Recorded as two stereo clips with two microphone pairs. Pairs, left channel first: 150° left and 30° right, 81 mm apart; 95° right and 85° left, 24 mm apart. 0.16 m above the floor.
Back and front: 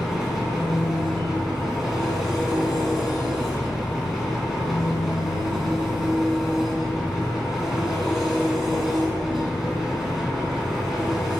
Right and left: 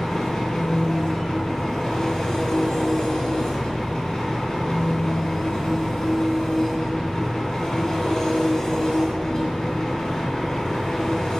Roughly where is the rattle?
No rattle in this recording.